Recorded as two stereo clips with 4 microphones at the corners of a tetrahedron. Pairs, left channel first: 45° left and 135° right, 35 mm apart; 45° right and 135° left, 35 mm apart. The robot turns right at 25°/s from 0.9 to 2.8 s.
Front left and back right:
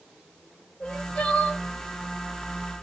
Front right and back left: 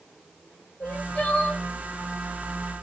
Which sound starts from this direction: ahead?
Crying, at 0.8 s.